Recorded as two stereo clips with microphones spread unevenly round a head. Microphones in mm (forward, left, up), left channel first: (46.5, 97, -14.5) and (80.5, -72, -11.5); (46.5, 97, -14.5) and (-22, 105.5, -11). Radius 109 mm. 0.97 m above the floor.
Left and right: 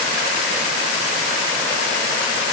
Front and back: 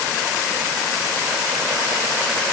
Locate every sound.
Only background noise.